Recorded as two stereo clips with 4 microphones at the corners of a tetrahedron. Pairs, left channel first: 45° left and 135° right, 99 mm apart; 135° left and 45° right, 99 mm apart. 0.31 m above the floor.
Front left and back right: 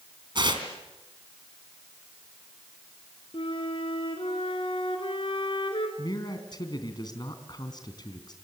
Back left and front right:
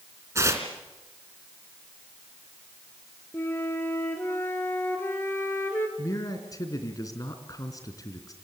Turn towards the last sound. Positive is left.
turn(degrees=85)